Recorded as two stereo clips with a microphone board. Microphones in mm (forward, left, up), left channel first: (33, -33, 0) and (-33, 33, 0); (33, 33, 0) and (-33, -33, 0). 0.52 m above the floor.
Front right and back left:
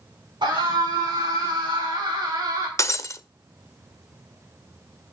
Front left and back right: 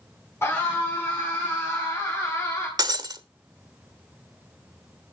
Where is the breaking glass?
100° right, 0.8 m.